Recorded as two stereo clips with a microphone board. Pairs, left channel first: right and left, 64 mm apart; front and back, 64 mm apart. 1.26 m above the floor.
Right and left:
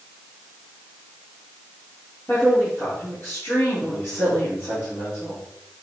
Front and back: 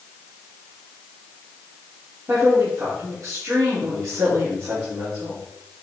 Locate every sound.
2.3 s a woman speaking: 150° right, 4 m